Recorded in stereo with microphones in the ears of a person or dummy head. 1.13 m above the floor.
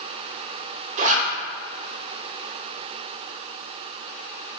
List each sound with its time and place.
1.0 s a zipper: 40° right (ahead or behind), 0.7 m